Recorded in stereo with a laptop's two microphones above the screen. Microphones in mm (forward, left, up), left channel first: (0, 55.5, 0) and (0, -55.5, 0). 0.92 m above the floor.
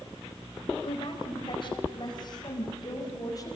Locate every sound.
0.8 s a woman speaking: 55° left (ahead or behind), 4.5 m; by 3.6 s 35° left (ahead or behind), 5 m